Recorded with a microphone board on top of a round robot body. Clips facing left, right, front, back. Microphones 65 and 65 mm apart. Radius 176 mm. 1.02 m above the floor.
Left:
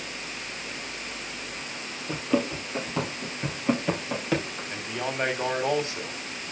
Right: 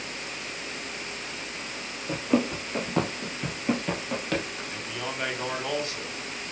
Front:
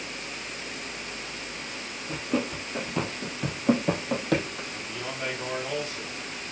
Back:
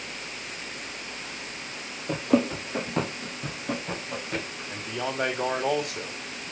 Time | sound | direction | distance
2.1 | running footsteps | 165° right | 1.7 m
4.7 | a man speaking | 155° left | 3 m